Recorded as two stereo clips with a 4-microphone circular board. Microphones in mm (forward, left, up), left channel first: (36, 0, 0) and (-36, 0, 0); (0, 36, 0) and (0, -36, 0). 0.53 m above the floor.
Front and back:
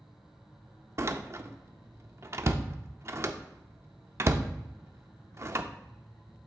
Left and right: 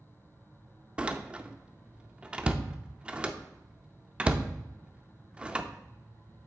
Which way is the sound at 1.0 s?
160° right.